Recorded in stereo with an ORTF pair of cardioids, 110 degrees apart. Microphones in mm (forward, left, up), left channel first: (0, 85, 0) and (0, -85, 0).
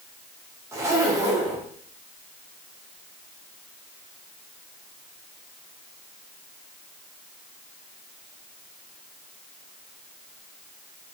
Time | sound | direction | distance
0.7 | a zipper | 20° right | 2.5 m